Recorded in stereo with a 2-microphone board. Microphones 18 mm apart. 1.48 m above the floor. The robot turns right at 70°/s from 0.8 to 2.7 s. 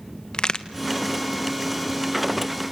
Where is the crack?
50° left (ahead or behind), 1.3 m.